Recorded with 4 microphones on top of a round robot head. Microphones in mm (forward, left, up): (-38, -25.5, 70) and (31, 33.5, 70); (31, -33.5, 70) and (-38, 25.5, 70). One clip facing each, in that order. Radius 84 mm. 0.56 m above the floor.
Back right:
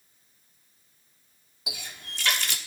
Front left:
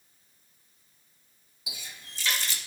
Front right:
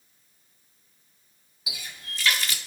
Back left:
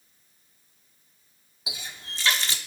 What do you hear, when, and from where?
1.7 s a running tap: 160° right, 0.6 m